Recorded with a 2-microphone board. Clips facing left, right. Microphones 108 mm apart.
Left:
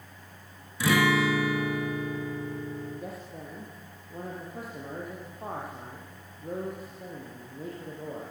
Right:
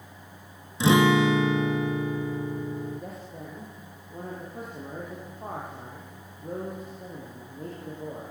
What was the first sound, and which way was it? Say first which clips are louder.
A guitar: right 4 dB; 25° right (ahead or behind).